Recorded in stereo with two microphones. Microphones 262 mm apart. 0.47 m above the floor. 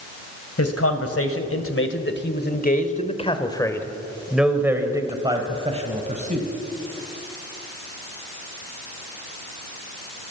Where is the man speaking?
65° left (ahead or behind), 2.5 m; by 6.5 s 30° right (ahead or behind), 3 m.